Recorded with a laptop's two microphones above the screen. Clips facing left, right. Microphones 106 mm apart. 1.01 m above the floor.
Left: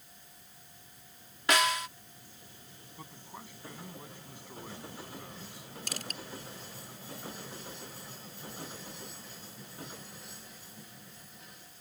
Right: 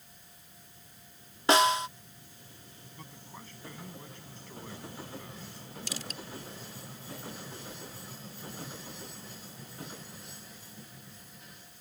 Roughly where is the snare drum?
Right.